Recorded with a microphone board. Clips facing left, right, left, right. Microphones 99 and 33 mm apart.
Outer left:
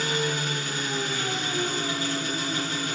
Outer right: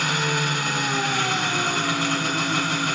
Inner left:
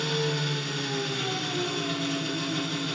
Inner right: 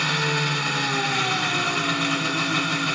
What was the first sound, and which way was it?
An engine running, 70° right (ahead or behind).